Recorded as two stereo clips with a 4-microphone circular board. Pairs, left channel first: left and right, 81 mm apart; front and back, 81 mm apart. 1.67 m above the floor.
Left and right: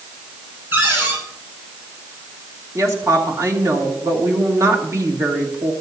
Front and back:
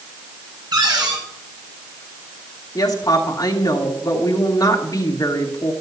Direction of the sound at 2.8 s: 40° right.